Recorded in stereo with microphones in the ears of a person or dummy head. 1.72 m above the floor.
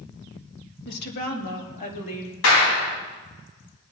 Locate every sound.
0.8 s a woman speaking: 70° left (ahead or behind), 2 m; by 2.3 s 45° left (ahead or behind), 4 m
2.4 s a clap: 80° left, 3 m